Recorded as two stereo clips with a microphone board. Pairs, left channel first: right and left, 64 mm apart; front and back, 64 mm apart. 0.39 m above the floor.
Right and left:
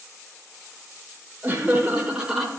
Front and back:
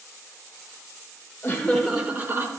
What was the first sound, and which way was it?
Laughter, 45° left.